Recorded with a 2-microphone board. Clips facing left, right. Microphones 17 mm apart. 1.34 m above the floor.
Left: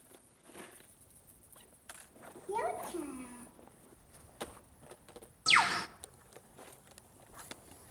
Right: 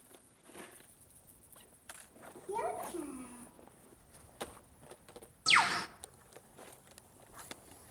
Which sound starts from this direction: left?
A child speaking, at 2.5 s.